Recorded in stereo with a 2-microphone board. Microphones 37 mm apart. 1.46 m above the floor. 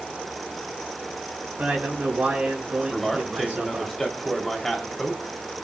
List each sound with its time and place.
1.6 s a man speaking: 35° right (ahead or behind), 7 m
2.9 s a man speaking: 5° left (ahead or behind), 3.5 m